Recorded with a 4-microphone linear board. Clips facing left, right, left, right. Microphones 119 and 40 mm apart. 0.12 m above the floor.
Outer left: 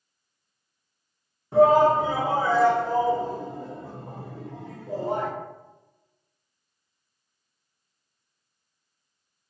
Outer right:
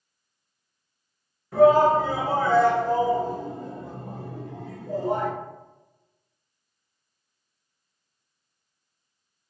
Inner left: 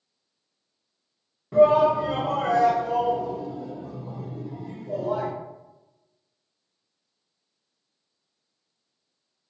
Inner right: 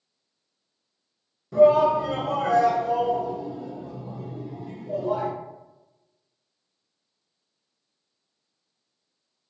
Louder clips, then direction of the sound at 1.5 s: Outer right 1 dB, even; 25° left (ahead or behind).